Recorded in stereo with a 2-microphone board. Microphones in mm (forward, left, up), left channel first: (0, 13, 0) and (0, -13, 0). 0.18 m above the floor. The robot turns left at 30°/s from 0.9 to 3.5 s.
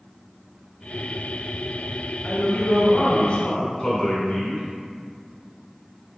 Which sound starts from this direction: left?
A man speaking, at 2.2 s.